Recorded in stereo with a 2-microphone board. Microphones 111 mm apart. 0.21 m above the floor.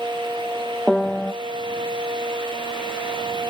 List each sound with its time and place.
0.9 s a piano: 5° left (ahead or behind), 0.5 m